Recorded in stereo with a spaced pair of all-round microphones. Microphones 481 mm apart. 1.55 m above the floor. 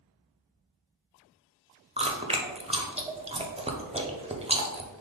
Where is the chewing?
15° right (ahead or behind), 0.6 m.